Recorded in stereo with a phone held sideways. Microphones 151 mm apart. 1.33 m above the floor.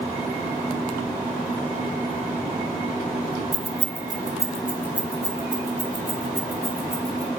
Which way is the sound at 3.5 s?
45° right (ahead or behind).